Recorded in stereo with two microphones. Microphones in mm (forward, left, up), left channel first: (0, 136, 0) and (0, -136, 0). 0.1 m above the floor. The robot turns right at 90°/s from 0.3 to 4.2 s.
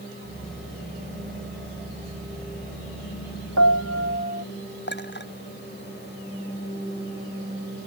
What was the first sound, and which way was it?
A piano, 95° right.